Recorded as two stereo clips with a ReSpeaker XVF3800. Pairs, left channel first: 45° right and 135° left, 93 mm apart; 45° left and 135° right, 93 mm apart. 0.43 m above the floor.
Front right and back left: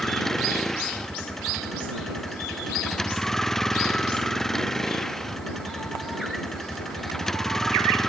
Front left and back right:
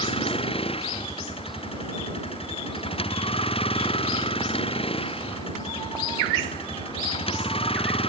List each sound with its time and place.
0.0 s a vehicle: 40° left